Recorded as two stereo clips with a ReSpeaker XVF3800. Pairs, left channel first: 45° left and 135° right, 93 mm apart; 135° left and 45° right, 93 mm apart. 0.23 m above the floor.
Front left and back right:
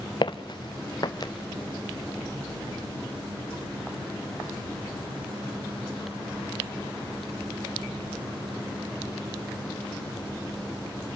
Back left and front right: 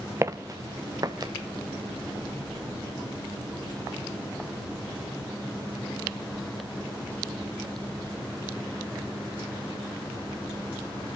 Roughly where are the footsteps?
Ahead.